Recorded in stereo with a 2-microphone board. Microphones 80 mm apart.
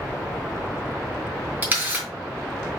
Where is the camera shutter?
20° right (ahead or behind), 3.5 m.